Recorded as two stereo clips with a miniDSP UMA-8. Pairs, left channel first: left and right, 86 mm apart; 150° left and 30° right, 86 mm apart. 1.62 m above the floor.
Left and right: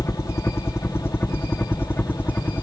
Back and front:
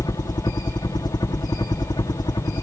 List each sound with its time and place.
0.0 s a helicopter: 140° left; by 2.6 s 155° left